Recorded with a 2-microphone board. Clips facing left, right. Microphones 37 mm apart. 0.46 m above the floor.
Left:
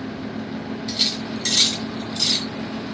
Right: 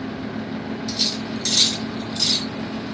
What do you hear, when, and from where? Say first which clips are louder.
0.9 s cutlery clinking: left 2 dB; 45° left (ahead or behind), 2.5 m